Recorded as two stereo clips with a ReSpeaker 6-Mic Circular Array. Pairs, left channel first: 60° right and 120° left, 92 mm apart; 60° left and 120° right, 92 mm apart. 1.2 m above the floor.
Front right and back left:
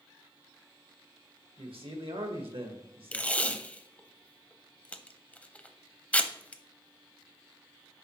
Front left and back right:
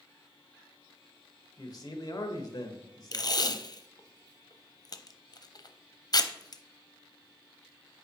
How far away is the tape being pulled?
About 0.6 m.